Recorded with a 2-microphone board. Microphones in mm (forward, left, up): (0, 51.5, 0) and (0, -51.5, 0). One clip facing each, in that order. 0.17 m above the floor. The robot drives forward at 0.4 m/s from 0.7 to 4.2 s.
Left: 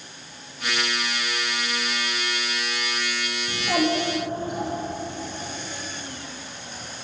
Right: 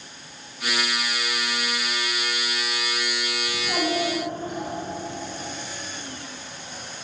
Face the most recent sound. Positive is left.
turn(degrees=50)  # may be behind; listen again after turning